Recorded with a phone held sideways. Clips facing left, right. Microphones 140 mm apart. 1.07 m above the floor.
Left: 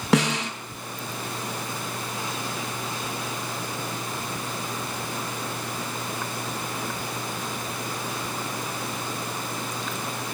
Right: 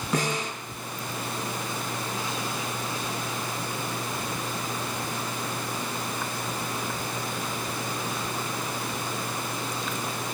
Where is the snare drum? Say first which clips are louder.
Left 6 dB; 85° left, 6 m.